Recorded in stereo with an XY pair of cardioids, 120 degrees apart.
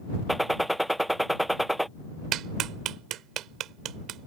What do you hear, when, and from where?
0.3 s a gunshot: 5° right
2.3 s a clap: 70° right